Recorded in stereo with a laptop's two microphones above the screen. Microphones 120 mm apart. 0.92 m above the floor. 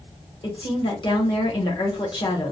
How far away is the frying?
No frying in this recording.